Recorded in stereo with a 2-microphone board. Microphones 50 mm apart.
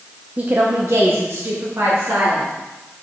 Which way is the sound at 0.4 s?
25° right (ahead or behind).